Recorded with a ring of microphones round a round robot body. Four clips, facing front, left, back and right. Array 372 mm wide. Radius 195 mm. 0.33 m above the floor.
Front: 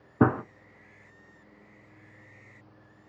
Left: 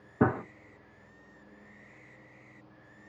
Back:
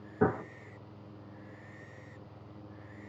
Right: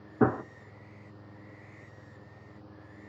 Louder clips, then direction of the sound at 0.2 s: Right 1 dB, front 6 dB; 5° left.